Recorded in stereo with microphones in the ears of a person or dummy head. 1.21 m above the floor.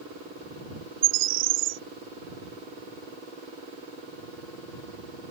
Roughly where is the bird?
Right.